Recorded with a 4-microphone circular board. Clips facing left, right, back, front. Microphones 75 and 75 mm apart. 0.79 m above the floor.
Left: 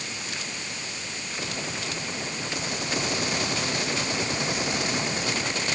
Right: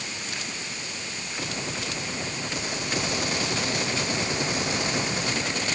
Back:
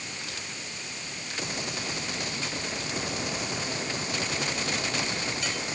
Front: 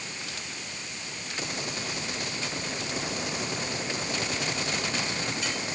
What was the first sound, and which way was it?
Only background noise.